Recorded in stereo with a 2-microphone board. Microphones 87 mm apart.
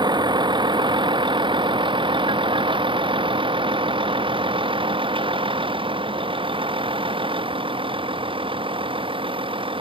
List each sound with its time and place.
0.0 s a vehicle: 55° right (ahead or behind); by 9.8 s 85° right